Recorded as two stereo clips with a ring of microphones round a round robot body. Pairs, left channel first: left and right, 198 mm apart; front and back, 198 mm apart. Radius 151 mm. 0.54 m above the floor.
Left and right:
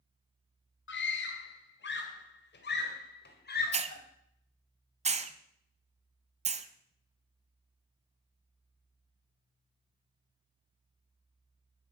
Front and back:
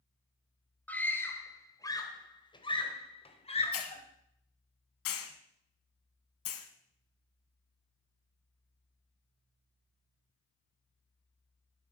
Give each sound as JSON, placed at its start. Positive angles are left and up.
{"t": 0.9, "sound": "a scream", "azimuth_deg": 80, "distance_m": 2.5}
{"t": 3.7, "sound": "a hiss", "azimuth_deg": -35, "distance_m": 0.8}